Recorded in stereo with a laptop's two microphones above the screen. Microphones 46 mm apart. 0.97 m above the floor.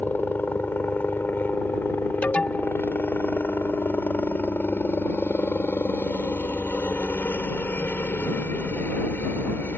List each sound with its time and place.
0.0 s a helicopter: 45° left (ahead or behind)
2.2 s an alarm: 30° left (ahead or behind)